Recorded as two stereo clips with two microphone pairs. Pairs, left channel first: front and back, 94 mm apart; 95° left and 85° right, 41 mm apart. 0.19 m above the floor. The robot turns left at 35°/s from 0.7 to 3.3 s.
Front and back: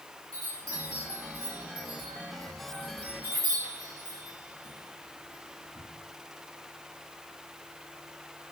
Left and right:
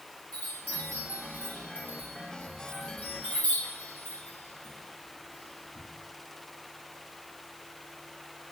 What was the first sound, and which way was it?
A chime, 140° left.